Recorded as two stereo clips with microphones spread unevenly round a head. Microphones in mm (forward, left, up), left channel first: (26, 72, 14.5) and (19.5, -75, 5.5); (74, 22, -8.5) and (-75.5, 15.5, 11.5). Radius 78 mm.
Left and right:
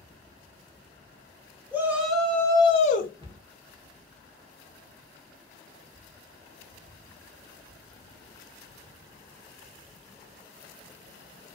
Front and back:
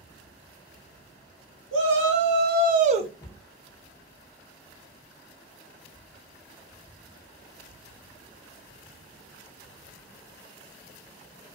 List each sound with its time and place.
1.7 s a shout: 170° right, 1.1 m; by 3.1 s 125° left, 0.7 m
3.2 s a cupboard door: 60° right, 0.9 m